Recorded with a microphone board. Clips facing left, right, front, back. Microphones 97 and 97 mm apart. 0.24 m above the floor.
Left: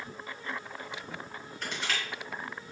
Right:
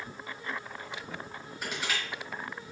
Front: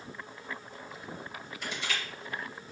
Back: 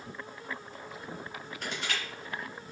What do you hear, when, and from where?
1.6 s crushing: 170° right, 3 m